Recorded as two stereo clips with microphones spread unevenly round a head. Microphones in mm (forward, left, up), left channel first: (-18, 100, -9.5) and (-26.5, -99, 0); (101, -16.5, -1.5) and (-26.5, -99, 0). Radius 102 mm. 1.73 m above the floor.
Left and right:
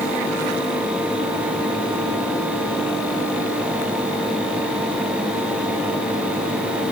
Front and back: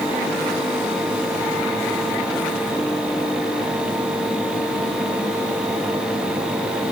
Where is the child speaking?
No child speaking in this recording.